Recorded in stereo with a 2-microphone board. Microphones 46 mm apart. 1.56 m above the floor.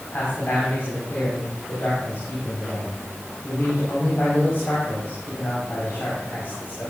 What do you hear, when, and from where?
0.1 s a man speaking: 50° left (ahead or behind), 5.5 m